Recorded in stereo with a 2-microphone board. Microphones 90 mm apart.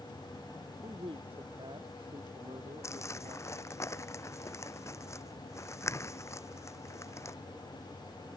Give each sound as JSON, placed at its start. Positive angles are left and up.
{"t": 0.8, "sound": "a man speaking", "side_deg": -70}
{"t": 2.8, "sound": "crumpling", "side_deg": 30}